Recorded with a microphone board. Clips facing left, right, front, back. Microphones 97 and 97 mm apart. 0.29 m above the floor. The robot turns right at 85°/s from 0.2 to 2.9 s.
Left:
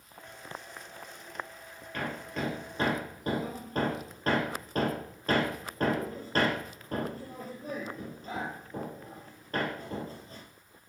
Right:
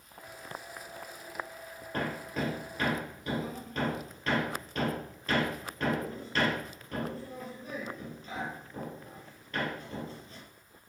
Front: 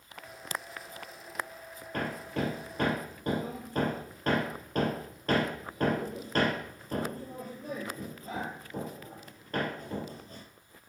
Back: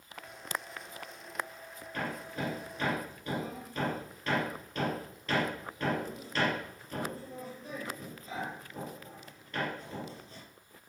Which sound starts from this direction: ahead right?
Hammering, at 1.9 s.